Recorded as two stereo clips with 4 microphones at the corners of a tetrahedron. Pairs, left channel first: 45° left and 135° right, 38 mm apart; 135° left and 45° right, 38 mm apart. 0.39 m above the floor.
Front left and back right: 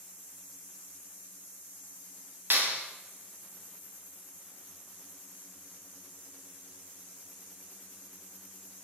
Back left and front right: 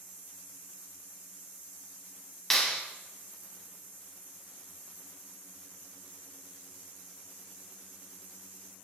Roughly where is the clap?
Behind right.